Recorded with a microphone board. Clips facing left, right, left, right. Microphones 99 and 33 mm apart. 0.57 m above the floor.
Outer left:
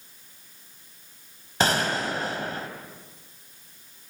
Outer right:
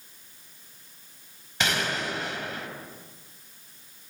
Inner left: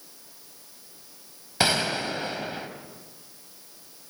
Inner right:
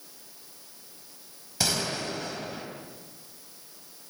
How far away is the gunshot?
About 3 m.